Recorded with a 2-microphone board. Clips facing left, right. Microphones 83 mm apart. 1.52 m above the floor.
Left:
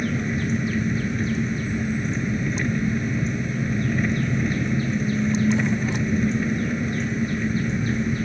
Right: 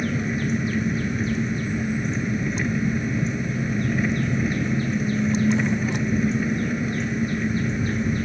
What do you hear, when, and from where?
0.0 s an engine running: centre (ahead or behind)